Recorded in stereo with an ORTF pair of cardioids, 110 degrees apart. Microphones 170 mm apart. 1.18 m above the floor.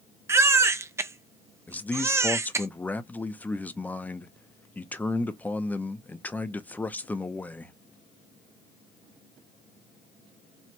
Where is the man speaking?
10° left, 0.7 m.